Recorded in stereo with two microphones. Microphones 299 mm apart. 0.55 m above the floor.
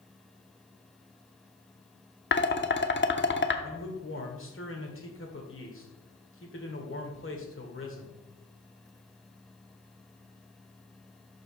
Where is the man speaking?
45° left (ahead or behind), 1.8 m.